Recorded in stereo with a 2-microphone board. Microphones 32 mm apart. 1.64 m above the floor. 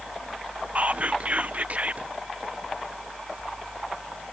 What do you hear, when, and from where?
0.8 s whispering: 50° right (ahead or behind)